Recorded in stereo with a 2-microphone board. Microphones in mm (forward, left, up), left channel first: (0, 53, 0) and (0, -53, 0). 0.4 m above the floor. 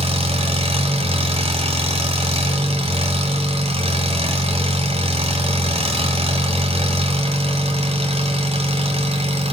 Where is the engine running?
75° right (ahead or behind), 2 m.